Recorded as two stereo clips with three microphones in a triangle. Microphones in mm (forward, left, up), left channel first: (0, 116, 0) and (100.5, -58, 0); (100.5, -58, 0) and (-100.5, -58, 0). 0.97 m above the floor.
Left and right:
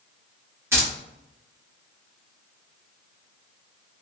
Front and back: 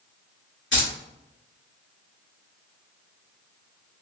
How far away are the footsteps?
I don't hear footsteps.